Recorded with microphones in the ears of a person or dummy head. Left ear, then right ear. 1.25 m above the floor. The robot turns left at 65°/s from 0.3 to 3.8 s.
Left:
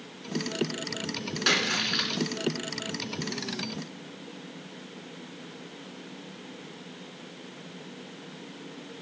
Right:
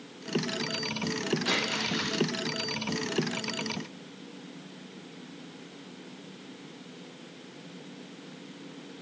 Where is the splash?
65° left, 2.5 m; by 2.2 s 15° left, 2.5 m.